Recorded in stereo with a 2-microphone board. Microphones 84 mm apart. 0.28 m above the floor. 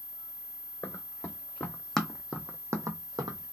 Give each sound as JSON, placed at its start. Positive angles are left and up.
{"t": 0.8, "sound": "running footsteps", "side_deg": 30, "distance_m": 1.2}